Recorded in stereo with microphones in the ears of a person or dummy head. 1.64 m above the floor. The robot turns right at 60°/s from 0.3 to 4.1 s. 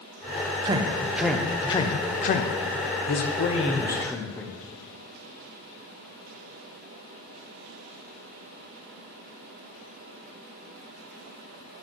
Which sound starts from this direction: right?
A man speaking, at 0.7 s.